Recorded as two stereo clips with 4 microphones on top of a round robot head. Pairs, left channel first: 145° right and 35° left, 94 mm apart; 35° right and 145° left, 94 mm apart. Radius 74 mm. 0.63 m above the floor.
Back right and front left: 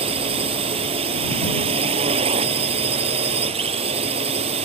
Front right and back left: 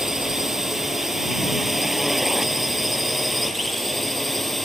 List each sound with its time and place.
0.0 s a drone: 60° left; by 4.7 s 55° left